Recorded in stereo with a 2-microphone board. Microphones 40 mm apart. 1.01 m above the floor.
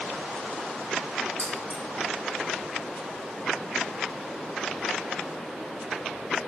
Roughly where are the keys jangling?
Left.